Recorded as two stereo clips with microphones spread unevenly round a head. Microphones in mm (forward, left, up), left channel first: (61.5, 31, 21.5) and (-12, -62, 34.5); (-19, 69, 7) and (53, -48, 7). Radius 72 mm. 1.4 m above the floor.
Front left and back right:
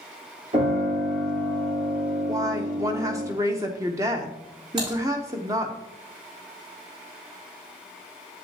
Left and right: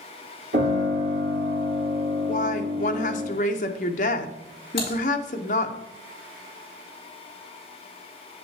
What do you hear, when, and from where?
0.5 s a piano: 85° right, 3.5 m
2.3 s a woman speaking: 165° left, 0.8 m
4.8 s typing on a keyboard: 175° left, 4.5 m